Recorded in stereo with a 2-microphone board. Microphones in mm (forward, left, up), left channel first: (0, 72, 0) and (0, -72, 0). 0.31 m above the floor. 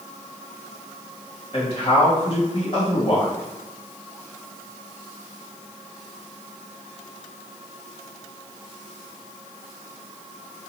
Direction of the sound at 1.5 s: 45° left (ahead or behind).